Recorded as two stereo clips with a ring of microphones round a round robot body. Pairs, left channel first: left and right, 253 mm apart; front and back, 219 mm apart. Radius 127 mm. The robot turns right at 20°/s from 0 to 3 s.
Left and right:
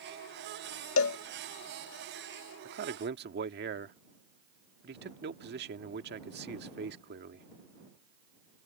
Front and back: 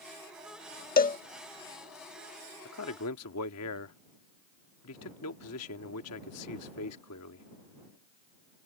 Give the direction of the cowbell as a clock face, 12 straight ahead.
10 o'clock.